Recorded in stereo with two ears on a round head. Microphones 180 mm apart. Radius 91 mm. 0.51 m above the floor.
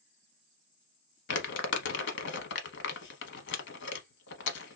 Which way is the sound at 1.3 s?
55° left (ahead or behind).